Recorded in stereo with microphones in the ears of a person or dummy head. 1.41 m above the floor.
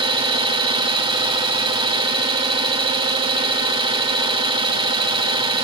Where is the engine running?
25° right (ahead or behind), 2.0 m.